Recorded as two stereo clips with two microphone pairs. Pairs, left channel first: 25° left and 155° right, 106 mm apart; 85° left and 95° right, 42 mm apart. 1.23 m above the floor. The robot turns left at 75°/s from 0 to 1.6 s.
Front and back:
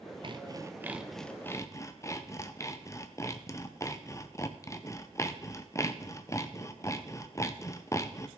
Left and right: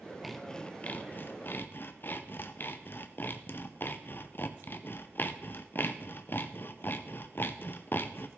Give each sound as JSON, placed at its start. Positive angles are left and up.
{"t": 0.2, "sound": "sawing", "azimuth_deg": 175, "distance_m": 0.6}